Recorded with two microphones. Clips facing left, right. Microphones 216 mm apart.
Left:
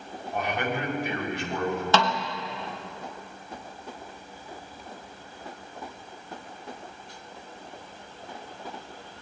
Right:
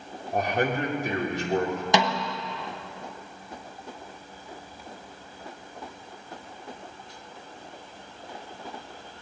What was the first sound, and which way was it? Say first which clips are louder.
A man speaking: right 4 dB; 45° right (ahead or behind).